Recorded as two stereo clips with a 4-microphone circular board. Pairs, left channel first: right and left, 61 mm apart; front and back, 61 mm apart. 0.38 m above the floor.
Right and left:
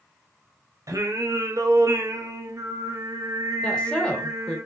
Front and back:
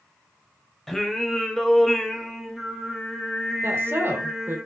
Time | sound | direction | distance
0.9 | singing | 85° left | 0.6 m
3.6 | a woman speaking | 160° right | 1.0 m